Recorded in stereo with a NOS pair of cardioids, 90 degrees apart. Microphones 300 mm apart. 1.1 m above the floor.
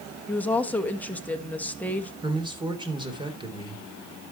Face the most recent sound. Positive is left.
turn(degrees=-15)